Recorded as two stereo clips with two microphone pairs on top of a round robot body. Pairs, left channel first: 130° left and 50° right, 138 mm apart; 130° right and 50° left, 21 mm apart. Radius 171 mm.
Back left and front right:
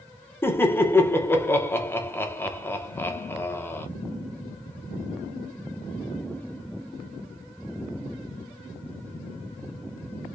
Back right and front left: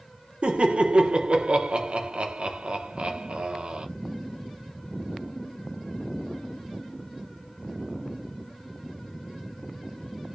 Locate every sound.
0.4 s laughter: 55° left, 0.8 m